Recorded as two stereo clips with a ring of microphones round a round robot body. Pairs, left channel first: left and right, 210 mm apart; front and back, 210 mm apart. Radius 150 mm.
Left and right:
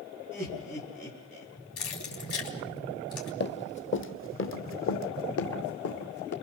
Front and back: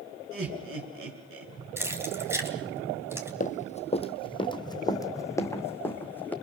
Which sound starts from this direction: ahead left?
Running footsteps, at 3.4 s.